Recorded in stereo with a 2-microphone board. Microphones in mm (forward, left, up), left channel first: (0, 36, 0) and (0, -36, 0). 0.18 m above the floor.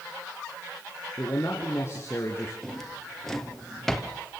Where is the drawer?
5° left (ahead or behind), 2.5 m.